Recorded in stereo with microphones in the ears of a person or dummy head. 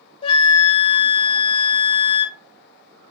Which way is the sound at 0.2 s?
30° left (ahead or behind).